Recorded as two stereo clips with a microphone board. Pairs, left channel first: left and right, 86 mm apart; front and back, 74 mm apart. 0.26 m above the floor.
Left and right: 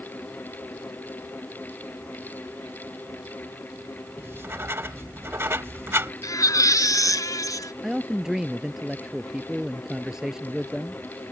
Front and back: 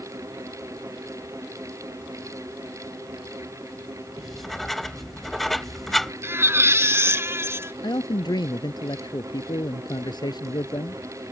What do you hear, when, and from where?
4.2 s writing: 85° right
6.2 s a baby crying: 130° left
7.8 s a man speaking: 5° right